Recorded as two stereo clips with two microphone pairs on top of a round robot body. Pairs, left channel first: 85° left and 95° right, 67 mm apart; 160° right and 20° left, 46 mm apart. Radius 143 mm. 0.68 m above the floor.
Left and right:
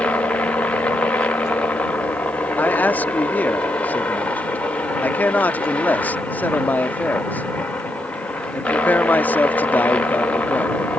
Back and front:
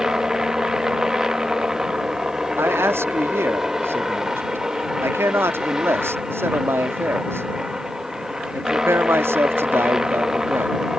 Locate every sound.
0.0 s a helicopter: 85° left
2.6 s a man speaking: 25° left